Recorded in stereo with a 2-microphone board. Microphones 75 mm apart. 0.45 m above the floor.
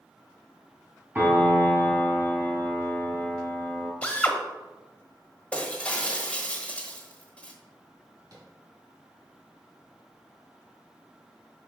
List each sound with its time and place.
1.1 s a piano: 25° right (ahead or behind), 1.6 m
4.0 s a drill: 15° left (ahead or behind), 0.8 m
5.5 s breaking glass: 15° left (ahead or behind), 1.1 m
8.3 s tapping: 50° right (ahead or behind), 2 m